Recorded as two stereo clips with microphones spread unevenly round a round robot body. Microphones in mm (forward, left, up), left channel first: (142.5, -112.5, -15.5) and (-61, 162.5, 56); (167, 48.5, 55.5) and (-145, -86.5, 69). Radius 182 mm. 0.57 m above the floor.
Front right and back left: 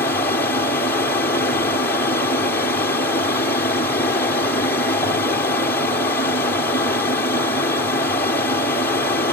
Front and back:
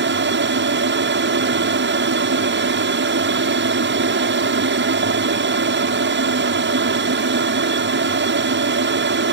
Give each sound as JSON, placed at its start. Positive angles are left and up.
{"t": 0.0, "sound": "an aircraft", "azimuth_deg": -120}